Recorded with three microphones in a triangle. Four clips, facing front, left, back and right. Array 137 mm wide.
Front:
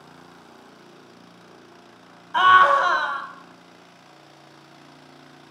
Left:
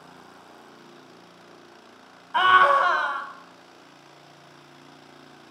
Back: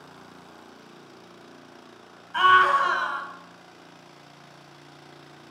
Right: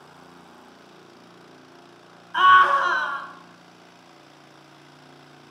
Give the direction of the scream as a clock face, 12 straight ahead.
10 o'clock.